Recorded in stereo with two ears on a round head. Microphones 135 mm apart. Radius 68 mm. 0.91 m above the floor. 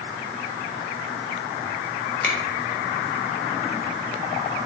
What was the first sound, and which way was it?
A finger snap, 10° left (ahead or behind).